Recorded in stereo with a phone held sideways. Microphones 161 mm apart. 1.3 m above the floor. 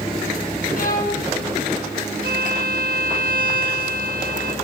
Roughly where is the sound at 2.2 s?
Right.